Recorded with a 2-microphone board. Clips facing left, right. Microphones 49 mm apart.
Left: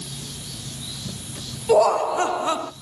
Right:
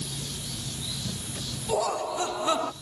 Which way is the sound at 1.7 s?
70° left (ahead or behind).